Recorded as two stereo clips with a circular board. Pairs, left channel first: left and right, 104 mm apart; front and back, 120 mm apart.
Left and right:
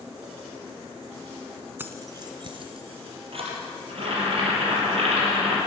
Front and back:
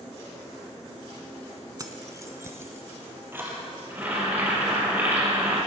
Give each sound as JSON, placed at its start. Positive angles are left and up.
{"t": 1.8, "sound": "keys jangling", "azimuth_deg": -145, "distance_m": 0.9}
{"t": 3.9, "sound": "boiling", "azimuth_deg": -110, "distance_m": 4.0}